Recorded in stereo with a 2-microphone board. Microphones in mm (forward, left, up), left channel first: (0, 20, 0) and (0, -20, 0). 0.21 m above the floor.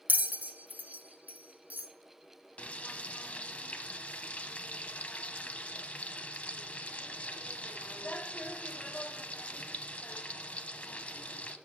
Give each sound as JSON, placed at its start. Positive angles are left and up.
{"t": 0.1, "sound": "a bell", "side_deg": -45, "distance_m": 0.7}
{"t": 2.6, "sound": "frying", "side_deg": 35, "distance_m": 0.5}